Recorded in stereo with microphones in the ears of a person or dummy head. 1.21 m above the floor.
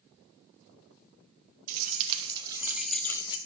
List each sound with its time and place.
1.7 s keys jangling: 40° right (ahead or behind), 0.9 m; by 3.4 s 30° left (ahead or behind), 0.6 m